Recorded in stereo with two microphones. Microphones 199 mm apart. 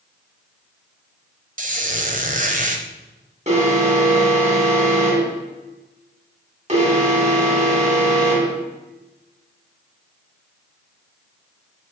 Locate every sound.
1.6 s a squeak: 40° right (ahead or behind), 1.0 m
3.5 s an alarm: 35° right (ahead or behind), 2.5 m